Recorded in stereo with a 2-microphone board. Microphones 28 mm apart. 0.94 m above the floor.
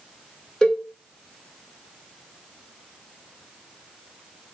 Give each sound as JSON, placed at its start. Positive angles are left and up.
{"t": 0.6, "sound": "a cowbell", "side_deg": 20, "distance_m": 1.0}